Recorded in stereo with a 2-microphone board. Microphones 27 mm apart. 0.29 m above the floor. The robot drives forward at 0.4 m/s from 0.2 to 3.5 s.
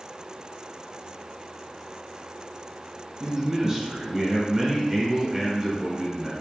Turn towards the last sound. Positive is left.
turn(degrees=-10)  # may be behind; listen again after turning